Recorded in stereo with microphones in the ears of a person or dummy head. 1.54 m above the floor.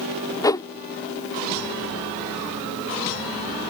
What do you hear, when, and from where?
0.4 s a whoosh: 15° left (ahead or behind)